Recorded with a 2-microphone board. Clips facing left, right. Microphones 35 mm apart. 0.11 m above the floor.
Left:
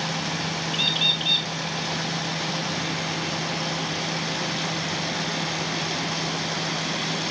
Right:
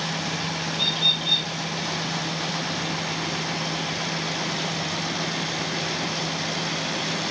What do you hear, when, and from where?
0.7 s a bird: 50° left (ahead or behind), 3.5 m